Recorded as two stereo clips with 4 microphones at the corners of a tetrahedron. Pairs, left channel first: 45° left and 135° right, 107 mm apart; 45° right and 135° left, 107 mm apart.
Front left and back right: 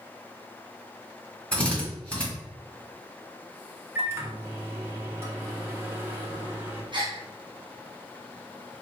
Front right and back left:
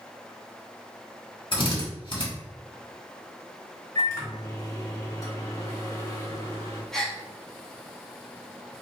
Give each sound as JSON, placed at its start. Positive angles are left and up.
{"t": 1.5, "sound": "a drill", "azimuth_deg": -35, "distance_m": 1.6}
{"t": 4.0, "sound": "a microwave", "azimuth_deg": -80, "distance_m": 0.9}
{"t": 6.9, "sound": "a gasp", "azimuth_deg": -130, "distance_m": 0.7}